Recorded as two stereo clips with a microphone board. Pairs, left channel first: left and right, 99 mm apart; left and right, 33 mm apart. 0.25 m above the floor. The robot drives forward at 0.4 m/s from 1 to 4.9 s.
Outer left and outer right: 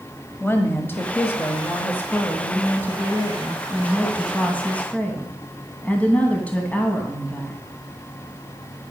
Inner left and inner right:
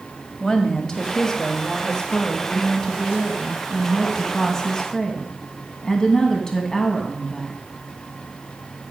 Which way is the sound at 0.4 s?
20° left (ahead or behind).